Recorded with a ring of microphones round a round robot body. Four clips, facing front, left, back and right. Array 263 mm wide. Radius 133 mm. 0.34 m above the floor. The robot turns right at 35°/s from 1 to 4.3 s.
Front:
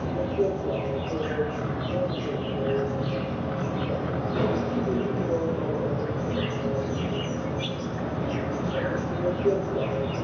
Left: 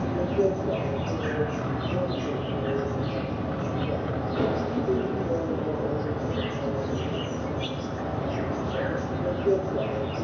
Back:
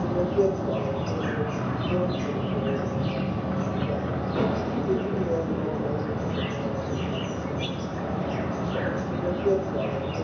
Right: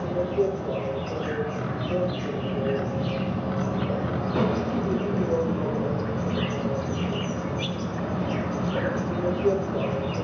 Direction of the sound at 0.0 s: 155° left.